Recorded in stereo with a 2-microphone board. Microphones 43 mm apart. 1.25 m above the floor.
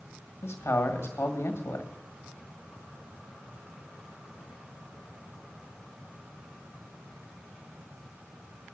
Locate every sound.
0.4 s a man speaking: 75° left (ahead or behind), 1.8 m